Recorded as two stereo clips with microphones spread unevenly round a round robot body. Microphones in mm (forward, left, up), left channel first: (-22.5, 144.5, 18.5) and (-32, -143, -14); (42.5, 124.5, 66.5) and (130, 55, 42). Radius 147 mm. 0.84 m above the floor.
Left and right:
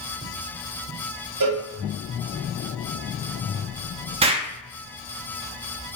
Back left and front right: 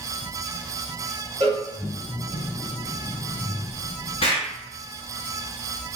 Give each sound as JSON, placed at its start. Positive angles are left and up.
{"t": 1.4, "sound": "a cowbell", "azimuth_deg": -85, "distance_m": 2.0}
{"t": 4.2, "sound": "an explosion", "azimuth_deg": -160, "distance_m": 0.6}